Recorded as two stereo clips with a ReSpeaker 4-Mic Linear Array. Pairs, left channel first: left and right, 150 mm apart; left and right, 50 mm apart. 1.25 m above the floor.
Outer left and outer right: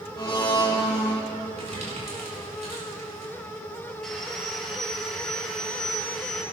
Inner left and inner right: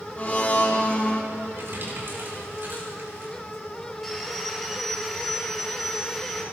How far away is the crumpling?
About 5.5 m.